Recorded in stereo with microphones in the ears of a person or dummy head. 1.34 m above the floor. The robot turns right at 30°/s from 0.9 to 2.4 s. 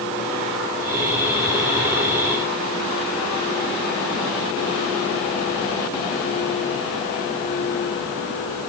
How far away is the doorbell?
I don't hear a doorbell.